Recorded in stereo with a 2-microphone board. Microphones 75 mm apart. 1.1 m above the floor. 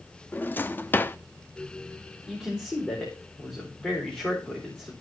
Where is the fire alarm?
No fire alarm in this recording.